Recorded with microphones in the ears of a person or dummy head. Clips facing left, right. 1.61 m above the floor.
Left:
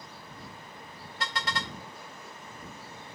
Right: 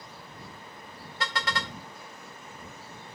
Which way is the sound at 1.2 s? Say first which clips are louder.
Right 2 dB; 70° right (ahead or behind).